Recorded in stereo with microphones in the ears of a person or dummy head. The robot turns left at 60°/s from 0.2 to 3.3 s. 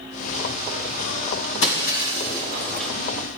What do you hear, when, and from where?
1.6 s breaking glass: 75° left, 2.5 m; by 2.9 s straight ahead, 2.5 m